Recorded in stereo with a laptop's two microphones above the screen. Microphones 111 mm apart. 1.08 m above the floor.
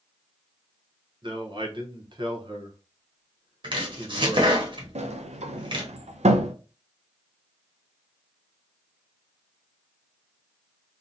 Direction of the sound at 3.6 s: 45° right (ahead or behind).